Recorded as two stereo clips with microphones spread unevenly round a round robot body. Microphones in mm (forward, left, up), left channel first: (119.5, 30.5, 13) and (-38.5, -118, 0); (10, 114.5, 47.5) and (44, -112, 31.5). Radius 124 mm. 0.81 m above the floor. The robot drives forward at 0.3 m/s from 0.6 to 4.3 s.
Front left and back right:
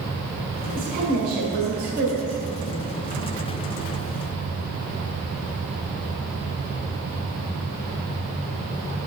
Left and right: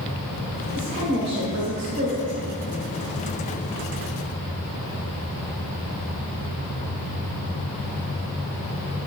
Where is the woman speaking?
110° right, 3 m; by 2.4 s 120° right, 3 m.